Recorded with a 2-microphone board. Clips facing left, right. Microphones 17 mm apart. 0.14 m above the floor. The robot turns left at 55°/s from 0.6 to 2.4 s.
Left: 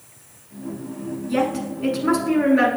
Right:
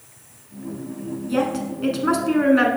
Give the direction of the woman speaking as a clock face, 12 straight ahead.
12 o'clock.